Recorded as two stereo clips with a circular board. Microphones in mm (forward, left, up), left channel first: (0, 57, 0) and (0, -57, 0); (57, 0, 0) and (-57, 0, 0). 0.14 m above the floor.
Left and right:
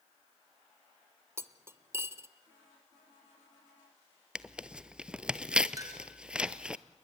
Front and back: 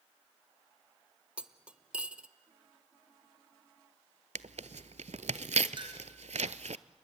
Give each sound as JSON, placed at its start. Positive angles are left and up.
{"t": 1.4, "sound": "cutlery clinking", "azimuth_deg": -115, "distance_m": 0.6}
{"t": 4.3, "sound": "tearing paper", "azimuth_deg": -170, "distance_m": 0.5}
{"t": 5.8, "sound": "a clink", "azimuth_deg": -145, "distance_m": 1.9}